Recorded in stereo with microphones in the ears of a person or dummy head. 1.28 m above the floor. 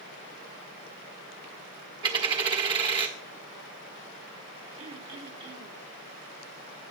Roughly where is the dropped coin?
Right.